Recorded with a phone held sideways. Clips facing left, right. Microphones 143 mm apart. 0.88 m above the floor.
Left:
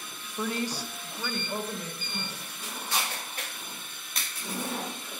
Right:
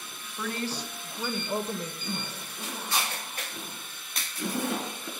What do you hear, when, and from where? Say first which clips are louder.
0.4 s a woman speaking: left 2 dB; 25° left (ahead or behind), 0.8 m; by 1.9 s 30° right (ahead or behind), 1.0 m
2.0 s a zipper: right 3 dB; 80° right, 4.5 m